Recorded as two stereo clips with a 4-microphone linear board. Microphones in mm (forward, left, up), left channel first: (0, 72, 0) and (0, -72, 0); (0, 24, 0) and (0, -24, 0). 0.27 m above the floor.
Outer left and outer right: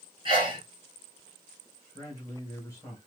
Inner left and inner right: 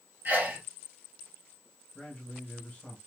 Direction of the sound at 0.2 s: 35° right (ahead or behind).